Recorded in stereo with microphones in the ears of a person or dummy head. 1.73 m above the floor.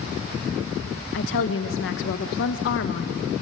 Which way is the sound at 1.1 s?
65° left (ahead or behind).